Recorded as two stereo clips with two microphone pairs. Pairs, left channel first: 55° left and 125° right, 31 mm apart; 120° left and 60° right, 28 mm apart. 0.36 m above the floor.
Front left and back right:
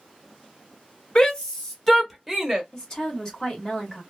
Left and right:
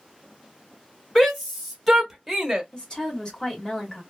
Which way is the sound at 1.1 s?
65° left.